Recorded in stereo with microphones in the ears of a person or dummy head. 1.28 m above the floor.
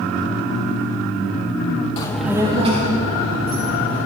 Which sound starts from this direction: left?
A child speaking, at 2.0 s.